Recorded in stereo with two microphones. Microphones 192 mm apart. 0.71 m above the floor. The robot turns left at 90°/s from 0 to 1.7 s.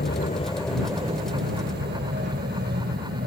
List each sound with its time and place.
0.0 s an aircraft: 60° left (ahead or behind); by 3.3 s 55° right (ahead or behind)